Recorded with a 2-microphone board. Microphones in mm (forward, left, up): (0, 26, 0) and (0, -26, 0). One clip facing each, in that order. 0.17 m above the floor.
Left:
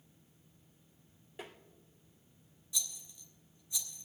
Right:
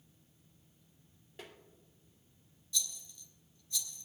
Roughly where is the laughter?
I don't hear laughter.